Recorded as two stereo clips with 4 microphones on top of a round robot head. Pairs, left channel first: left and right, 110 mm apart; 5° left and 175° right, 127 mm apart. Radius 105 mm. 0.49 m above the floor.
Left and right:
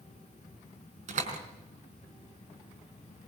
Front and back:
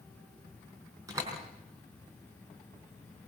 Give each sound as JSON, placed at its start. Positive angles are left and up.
{"t": 1.1, "sound": "a door slam", "azimuth_deg": -105, "distance_m": 5.0}